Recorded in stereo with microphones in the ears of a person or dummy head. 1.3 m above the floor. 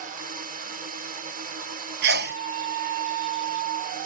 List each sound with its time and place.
0.0 s a drone: 40° right (ahead or behind)
2.0 s a sneeze: 65° right (ahead or behind)